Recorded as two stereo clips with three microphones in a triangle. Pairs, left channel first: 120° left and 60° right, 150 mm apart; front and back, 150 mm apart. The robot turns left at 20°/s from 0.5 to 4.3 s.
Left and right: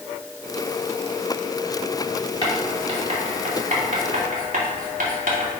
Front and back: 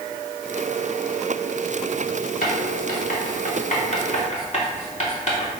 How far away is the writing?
About 2.5 m.